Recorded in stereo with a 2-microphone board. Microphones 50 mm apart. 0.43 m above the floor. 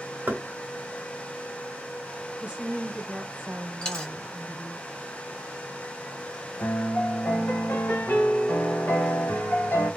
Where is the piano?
60° left (ahead or behind), 1.4 m.